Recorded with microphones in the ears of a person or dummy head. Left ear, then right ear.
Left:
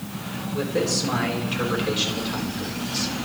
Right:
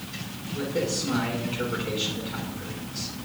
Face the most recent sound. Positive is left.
turn(degrees=55)  # may be behind; listen again after turning